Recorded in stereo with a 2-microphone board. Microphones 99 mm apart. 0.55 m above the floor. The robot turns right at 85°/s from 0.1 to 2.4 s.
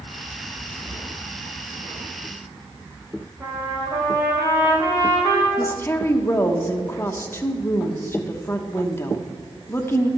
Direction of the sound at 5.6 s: 25° left (ahead or behind).